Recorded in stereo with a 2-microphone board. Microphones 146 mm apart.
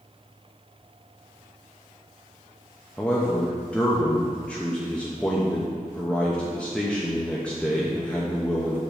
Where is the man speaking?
10° left (ahead or behind), 0.8 m.